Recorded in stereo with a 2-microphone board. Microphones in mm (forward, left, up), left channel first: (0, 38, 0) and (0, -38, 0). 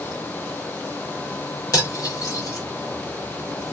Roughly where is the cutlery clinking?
Left.